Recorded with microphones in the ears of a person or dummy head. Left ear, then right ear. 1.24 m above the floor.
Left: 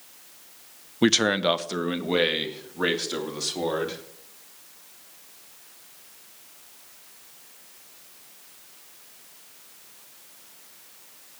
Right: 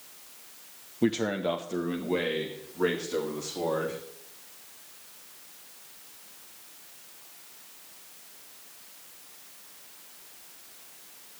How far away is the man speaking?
About 0.6 m.